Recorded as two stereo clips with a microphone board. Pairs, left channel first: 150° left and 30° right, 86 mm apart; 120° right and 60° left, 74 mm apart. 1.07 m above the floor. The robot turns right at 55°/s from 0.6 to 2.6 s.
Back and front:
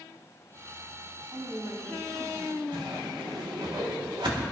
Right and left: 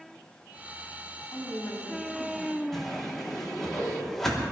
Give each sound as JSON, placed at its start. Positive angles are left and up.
{"t": 1.3, "sound": "a woman speaking", "azimuth_deg": -75, "distance_m": 7.0}
{"t": 2.7, "sound": "a whoosh", "azimuth_deg": -35, "distance_m": 3.0}